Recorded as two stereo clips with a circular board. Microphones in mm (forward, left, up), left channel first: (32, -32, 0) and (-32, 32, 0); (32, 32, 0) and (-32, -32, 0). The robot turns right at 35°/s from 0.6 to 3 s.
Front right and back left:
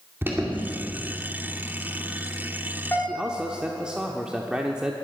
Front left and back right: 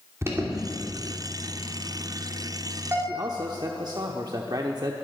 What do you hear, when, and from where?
0.2 s an alarm: 175° right, 2.5 m; by 3.0 s 90° right, 2.5 m
3.1 s a man speaking: 150° right, 0.9 m